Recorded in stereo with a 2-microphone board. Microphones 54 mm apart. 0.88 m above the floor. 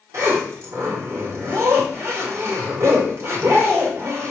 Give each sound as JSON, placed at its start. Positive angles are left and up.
{"t": 0.1, "sound": "a zipper", "side_deg": -50, "distance_m": 1.4}